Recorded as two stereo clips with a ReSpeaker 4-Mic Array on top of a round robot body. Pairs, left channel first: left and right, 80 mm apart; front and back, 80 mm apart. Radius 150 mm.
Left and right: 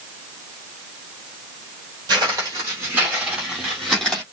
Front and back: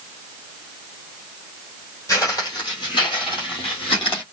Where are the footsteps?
50° right, 1.2 m; by 4.2 s 10° left, 1.5 m.